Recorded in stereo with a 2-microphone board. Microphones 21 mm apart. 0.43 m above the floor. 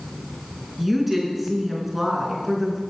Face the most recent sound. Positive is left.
turn(degrees=-5)  # may be behind; listen again after turning